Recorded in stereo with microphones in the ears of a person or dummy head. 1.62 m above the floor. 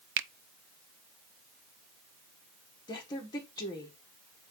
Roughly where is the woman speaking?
Left.